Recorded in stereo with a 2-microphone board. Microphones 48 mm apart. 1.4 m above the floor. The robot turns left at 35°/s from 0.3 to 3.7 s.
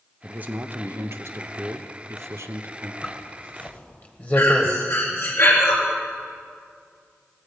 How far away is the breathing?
About 3.5 m.